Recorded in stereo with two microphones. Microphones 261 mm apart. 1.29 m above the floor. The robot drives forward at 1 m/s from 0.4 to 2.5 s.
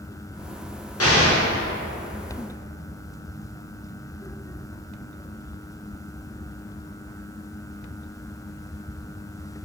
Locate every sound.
1.0 s an explosion: 65° left (ahead or behind), 1.5 m; by 1.4 s 50° left (ahead or behind), 1.7 m